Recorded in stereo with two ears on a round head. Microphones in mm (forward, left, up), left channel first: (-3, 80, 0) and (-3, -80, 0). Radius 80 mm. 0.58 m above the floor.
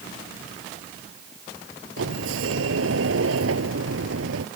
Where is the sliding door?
85° right.